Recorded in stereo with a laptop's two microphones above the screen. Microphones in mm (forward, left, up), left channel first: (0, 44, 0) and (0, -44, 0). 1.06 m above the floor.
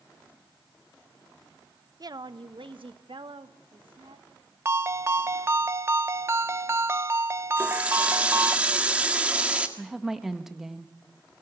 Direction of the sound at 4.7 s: 30° right (ahead or behind).